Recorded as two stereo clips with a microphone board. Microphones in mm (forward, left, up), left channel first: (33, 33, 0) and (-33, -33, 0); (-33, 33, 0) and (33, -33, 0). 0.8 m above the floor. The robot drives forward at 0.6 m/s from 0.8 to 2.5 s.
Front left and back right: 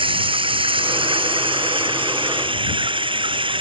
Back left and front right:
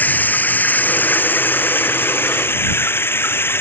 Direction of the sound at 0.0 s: 155° right.